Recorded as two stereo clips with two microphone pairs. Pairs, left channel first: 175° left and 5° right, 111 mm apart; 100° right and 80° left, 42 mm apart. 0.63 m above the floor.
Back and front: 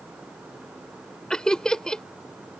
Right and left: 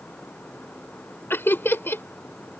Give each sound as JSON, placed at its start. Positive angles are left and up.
{"t": 1.3, "sound": "laughter", "azimuth_deg": -100}